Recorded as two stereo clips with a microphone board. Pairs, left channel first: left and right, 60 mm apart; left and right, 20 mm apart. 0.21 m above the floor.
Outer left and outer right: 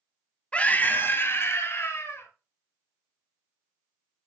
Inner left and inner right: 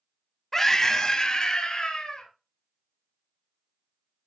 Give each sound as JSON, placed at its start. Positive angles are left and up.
{"t": 0.5, "sound": "a scream", "side_deg": 20, "distance_m": 1.0}